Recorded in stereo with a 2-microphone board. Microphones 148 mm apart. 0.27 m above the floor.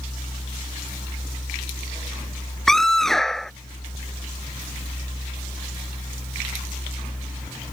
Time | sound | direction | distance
2.7 | a scream | 5° left (ahead or behind) | ?